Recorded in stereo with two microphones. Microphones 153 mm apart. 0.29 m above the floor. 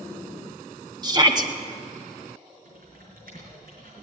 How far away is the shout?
About 1.5 m.